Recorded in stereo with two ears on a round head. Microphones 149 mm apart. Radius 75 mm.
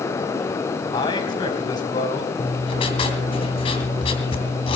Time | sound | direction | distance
0.9 | a man speaking | 25° left (ahead or behind) | 3.5 m
2.4 | writing | 35° left (ahead or behind) | 2.5 m